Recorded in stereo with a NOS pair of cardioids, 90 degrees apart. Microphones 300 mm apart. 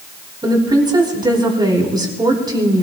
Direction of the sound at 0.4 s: 15° right.